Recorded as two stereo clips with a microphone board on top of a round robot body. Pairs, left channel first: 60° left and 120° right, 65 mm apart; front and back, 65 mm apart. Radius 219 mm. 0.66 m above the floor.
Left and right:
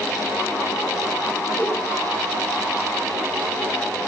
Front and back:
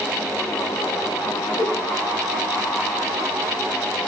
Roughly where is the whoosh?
Ahead.